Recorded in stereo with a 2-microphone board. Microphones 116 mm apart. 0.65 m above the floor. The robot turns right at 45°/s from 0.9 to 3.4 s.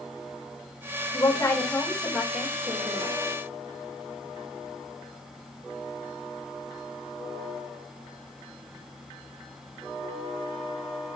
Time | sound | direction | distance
1.1 | a woman speaking | 140° left | 2 m